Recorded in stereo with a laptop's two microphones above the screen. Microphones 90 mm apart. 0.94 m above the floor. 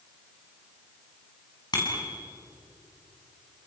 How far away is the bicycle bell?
About 6 m.